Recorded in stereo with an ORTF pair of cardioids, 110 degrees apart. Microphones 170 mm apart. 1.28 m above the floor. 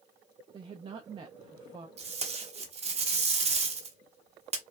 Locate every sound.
0.5 s a woman speaking: 30° right, 0.6 m
2.0 s tape being pulled: 40° right, 1.1 m